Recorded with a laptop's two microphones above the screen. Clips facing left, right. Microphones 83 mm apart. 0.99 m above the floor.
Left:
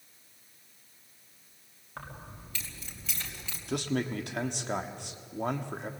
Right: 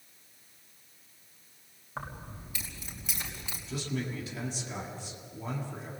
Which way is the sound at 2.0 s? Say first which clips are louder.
Right 3 dB; 15° right (ahead or behind).